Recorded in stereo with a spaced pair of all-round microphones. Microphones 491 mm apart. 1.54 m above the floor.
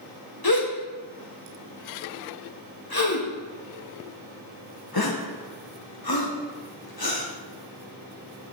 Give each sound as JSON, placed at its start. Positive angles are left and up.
{"t": 0.4, "sound": "a gasp", "side_deg": 45, "distance_m": 1.3}